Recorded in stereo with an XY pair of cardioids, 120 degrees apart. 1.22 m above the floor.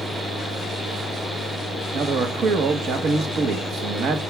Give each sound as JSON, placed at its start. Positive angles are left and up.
{"t": 0.0, "sound": "a fan", "azimuth_deg": -25, "distance_m": 1.4}
{"t": 1.9, "sound": "a man speaking", "azimuth_deg": -65, "distance_m": 1.2}